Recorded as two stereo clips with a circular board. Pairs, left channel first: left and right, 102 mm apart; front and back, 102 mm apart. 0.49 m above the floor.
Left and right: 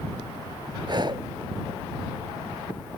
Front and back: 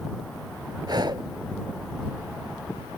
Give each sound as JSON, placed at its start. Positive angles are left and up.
{"t": 0.9, "sound": "breathing", "azimuth_deg": -135}